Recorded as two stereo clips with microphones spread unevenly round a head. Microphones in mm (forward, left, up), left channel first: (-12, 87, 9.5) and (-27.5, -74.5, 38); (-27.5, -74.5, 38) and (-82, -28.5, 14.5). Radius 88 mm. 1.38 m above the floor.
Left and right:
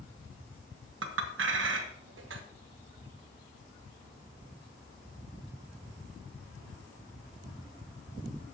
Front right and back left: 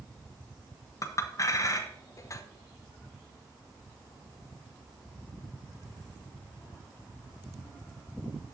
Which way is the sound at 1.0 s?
75° right.